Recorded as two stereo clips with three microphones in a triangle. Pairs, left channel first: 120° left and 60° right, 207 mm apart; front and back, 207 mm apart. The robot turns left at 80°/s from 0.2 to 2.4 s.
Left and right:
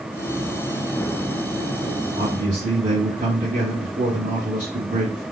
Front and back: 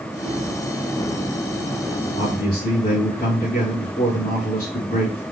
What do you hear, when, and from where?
2.2 s a man speaking: 10° right, 2 m; by 5.2 s 25° right, 2 m